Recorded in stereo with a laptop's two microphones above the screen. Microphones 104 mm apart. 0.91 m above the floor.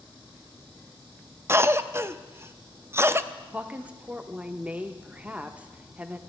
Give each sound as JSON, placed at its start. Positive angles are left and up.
{"t": 1.5, "sound": "a cough", "side_deg": -25, "distance_m": 0.6}
{"t": 3.5, "sound": "a woman speaking", "side_deg": -15, "distance_m": 0.8}